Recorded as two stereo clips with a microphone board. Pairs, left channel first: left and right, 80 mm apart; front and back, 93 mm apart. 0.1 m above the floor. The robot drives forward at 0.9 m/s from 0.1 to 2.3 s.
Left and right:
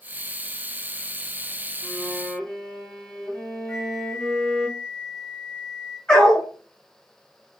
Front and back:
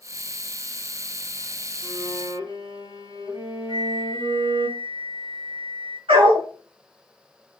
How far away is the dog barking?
About 5 m.